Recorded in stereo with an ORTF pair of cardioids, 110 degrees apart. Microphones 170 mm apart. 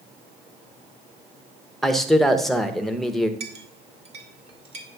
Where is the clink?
40° right, 1.5 m.